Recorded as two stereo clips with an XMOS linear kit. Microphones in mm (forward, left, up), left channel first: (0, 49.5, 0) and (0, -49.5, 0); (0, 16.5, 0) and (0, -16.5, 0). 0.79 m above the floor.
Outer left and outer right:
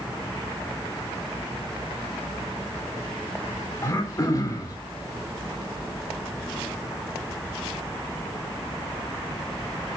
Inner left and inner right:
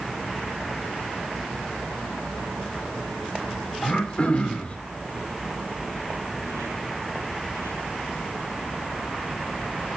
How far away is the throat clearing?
About 3 m.